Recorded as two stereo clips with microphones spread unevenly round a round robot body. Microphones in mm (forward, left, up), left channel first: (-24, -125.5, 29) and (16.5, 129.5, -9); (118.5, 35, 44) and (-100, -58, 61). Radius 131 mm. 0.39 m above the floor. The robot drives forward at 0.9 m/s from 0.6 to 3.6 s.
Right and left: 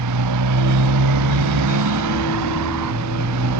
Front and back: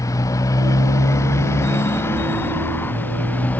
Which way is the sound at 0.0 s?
100° left.